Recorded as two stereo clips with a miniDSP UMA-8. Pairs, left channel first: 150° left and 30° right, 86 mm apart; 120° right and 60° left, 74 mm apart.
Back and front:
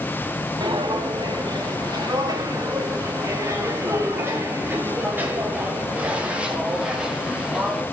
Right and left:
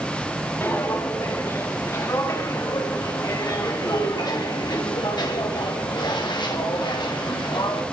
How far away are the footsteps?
About 4 m.